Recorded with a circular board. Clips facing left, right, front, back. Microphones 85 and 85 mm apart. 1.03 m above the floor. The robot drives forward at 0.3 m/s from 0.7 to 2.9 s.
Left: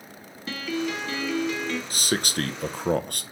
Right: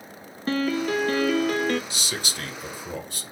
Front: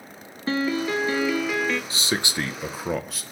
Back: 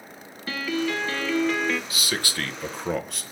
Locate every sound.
0.5 s a piano: 55° right, 0.6 m; by 1.8 s 90° right, 0.5 m
1.9 s a man speaking: 55° left, 0.6 m; by 3.2 s 90° left, 0.5 m